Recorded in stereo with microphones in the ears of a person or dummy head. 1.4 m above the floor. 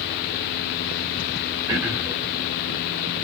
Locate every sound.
1.7 s throat clearing: 15° right (ahead or behind), 0.8 m